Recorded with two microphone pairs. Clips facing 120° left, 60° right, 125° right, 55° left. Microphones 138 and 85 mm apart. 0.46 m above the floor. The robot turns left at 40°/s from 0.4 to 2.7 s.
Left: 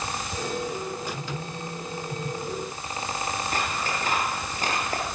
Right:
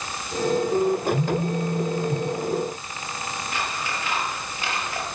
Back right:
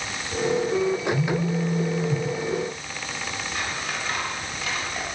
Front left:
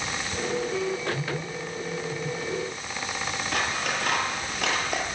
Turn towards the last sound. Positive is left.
turn(degrees=70)